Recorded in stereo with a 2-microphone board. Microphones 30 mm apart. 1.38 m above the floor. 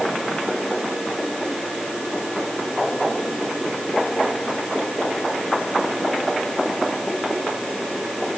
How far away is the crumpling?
No crumpling in this recording.